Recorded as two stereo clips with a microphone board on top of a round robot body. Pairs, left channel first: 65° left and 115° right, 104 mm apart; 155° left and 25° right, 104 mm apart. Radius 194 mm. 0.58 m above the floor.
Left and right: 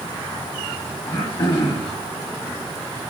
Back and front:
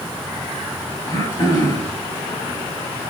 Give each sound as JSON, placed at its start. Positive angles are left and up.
{"t": 1.1, "sound": "throat clearing", "azimuth_deg": 100, "distance_m": 3.0}